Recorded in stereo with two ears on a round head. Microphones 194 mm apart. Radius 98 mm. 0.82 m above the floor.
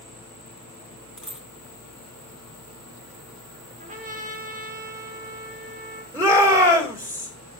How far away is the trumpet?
About 1.3 m.